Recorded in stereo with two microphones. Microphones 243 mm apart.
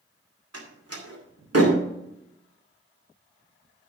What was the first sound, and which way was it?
A door slam, 90° right.